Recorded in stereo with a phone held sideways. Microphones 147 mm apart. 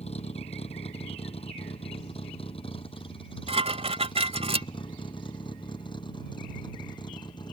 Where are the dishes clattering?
40° right (ahead or behind).